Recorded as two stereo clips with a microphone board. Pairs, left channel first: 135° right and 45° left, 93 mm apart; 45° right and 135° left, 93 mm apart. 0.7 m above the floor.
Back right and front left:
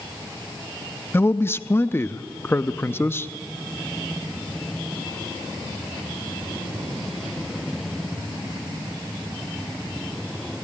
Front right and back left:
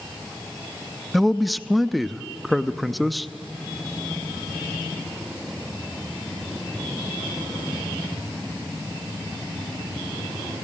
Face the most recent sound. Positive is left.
turn(degrees=-135)